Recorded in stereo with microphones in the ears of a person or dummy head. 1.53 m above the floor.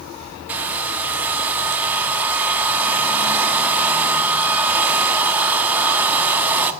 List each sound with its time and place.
0.5 s a hair dryer: 15° right (ahead or behind), 0.5 m